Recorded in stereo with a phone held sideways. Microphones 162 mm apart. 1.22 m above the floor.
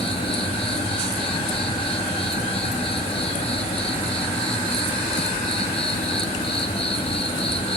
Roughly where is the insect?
Left.